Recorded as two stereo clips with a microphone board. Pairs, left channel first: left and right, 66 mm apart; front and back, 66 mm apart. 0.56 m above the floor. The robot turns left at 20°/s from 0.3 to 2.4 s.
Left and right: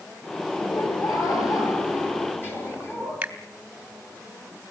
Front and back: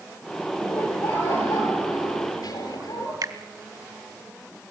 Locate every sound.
0.5 s laughter: 70° left, 10 m; by 3.1 s 30° left, 10 m
3.2 s a finger snap: 160° right, 2.5 m